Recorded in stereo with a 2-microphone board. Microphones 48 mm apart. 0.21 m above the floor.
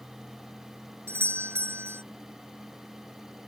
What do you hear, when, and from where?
1.1 s a doorbell: 55° right (ahead or behind)